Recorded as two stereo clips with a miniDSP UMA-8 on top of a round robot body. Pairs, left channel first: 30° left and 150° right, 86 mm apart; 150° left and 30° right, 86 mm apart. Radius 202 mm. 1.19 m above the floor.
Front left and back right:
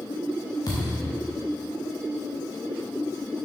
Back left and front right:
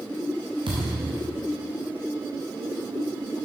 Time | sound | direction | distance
0.7 | a thud | 15° right | 0.9 m